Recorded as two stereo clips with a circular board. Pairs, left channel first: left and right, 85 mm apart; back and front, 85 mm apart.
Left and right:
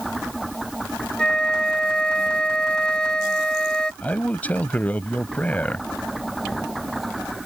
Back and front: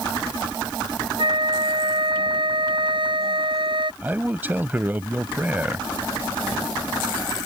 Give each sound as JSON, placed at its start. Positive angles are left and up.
{"t": 1.2, "sound": "a flute", "azimuth_deg": 10}
{"t": 4.0, "sound": "a man speaking", "azimuth_deg": 40}